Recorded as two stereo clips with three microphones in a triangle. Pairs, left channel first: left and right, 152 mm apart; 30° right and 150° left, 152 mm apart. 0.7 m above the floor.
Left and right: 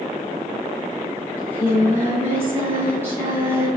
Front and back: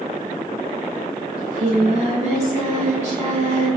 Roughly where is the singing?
Behind.